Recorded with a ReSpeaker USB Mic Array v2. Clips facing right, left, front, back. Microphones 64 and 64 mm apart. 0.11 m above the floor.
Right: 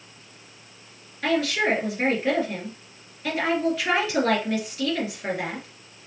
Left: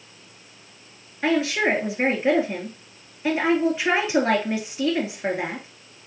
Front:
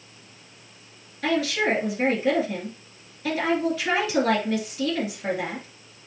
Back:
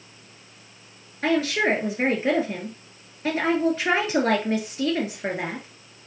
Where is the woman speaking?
150° left, 1.8 m.